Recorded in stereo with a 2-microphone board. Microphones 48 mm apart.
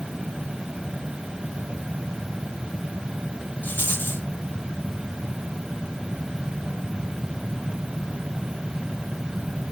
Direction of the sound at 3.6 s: 35° left (ahead or behind).